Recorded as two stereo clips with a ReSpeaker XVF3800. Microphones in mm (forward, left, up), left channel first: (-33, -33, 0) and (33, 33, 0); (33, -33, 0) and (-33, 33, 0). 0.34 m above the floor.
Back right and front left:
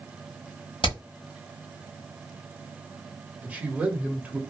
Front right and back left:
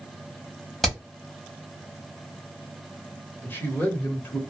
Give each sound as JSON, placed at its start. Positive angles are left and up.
{"t": 0.8, "sound": "hammering", "azimuth_deg": -135, "distance_m": 1.1}
{"t": 3.4, "sound": "a man speaking", "azimuth_deg": -10, "distance_m": 1.1}